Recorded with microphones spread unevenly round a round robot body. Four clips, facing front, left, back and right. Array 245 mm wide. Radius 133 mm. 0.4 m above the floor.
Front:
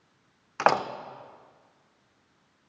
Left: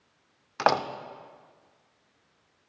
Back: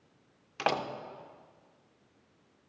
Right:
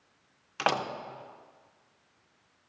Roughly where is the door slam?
Ahead left.